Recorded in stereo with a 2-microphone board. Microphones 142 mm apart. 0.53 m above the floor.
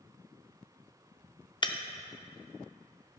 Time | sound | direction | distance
1.6 | breaking glass | 30° left (ahead or behind) | 0.6 m